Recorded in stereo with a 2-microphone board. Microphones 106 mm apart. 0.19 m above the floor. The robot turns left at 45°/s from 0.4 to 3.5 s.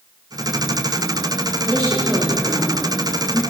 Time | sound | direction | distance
1.7 | a woman speaking | 45° right (ahead or behind) | 5.5 m